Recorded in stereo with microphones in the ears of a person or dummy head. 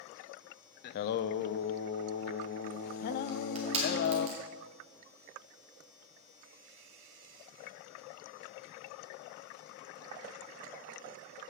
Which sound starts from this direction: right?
Crushing, at 3.3 s.